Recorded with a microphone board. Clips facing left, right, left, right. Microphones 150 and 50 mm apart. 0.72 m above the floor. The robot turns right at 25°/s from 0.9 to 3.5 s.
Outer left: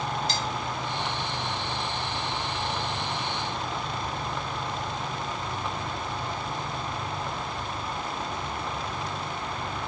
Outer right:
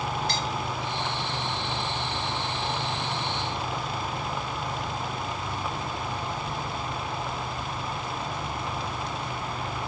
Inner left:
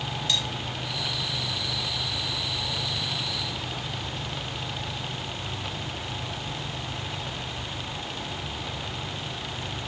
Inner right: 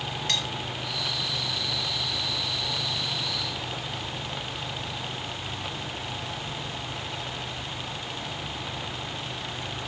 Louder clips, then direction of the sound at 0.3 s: Outer right 1 dB, inner left 1 dB; 60° right (ahead or behind).